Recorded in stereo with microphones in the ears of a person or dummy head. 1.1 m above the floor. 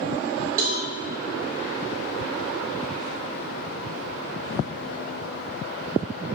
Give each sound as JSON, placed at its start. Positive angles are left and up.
{"t": 0.6, "sound": "a cowbell", "side_deg": -55, "distance_m": 5.0}